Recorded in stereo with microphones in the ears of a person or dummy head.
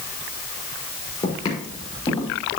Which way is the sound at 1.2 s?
30° left (ahead or behind).